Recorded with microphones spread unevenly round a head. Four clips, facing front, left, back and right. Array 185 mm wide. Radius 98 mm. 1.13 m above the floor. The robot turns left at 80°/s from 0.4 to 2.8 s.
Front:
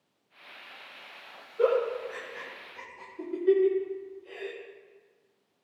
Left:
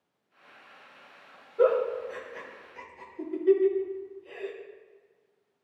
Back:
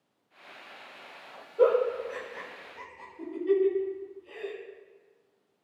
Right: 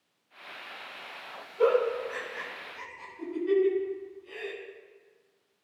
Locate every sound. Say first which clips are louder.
1.6 s a giggle: left 1 dB, back 2 dB; 150° left, 5.5 m; by 4.5 s 55° left, 5.5 m